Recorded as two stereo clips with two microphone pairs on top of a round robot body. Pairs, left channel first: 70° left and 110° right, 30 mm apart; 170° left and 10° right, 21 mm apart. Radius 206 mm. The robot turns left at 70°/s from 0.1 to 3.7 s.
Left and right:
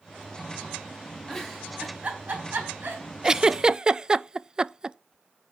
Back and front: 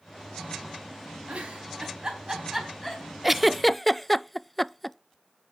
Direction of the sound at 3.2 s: 70° right.